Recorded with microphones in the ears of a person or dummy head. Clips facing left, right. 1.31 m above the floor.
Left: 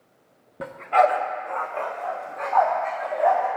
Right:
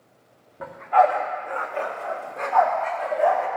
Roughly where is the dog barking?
Left.